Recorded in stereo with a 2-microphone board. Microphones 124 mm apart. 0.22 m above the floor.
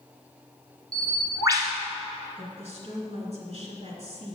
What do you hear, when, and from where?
0.9 s a bird: 30° right (ahead or behind), 1.3 m
2.4 s a woman speaking: 60° right (ahead or behind), 2 m